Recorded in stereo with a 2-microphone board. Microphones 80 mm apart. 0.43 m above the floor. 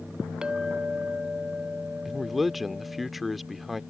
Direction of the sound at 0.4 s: 10° right (ahead or behind).